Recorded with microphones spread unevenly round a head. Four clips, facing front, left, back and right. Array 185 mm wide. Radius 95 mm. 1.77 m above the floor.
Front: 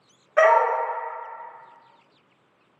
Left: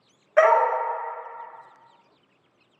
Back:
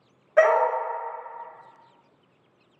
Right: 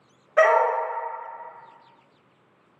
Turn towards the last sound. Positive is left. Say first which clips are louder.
# left 1 dB, front 1 dB
turn(degrees=85)